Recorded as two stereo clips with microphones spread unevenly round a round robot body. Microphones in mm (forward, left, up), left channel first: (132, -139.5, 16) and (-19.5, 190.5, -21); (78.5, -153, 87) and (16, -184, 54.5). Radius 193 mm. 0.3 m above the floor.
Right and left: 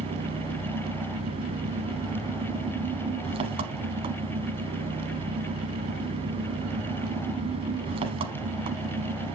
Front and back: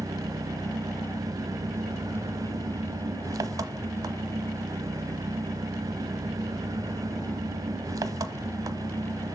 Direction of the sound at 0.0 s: 170° right.